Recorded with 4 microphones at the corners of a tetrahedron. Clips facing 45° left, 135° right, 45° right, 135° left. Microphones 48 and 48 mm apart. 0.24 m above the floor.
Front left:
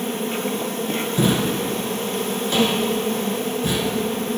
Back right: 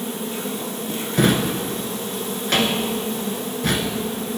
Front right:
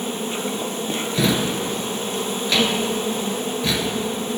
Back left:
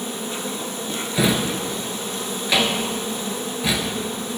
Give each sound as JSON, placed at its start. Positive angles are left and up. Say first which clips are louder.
{"t": 0.0, "sound": "an insect", "louder": "front left 3 dB, front right 3 dB", "azimuth_deg": 5, "distance_m": 0.8}
{"t": 1.1, "sound": "a drawer", "louder": "back right 2 dB, back left 1 dB", "azimuth_deg": -150, "distance_m": 0.9}